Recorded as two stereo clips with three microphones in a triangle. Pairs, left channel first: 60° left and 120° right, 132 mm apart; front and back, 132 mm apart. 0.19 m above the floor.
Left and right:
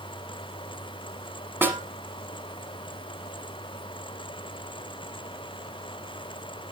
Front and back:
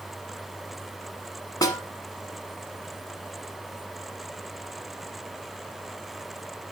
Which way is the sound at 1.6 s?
50° right.